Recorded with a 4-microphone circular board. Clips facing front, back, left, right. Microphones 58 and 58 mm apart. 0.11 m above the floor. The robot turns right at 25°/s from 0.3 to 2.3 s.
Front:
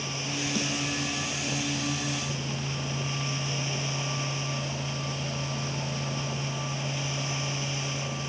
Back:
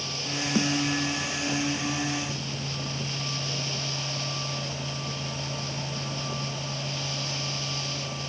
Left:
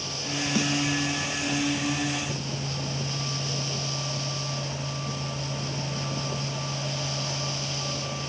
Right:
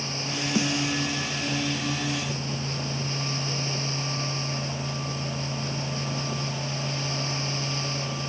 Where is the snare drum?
150° right, 2 m; by 0.7 s 145° right, 2 m.